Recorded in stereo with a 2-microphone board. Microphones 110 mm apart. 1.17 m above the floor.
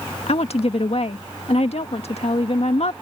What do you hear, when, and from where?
0.3 s a woman speaking: 80° left